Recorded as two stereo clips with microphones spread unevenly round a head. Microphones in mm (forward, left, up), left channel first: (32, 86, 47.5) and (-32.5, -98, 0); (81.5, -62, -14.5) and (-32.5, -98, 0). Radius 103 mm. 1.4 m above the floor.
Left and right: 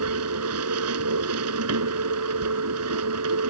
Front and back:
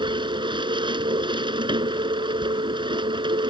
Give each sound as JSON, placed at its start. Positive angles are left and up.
{"t": 0.0, "sound": "a machine running", "azimuth_deg": -115}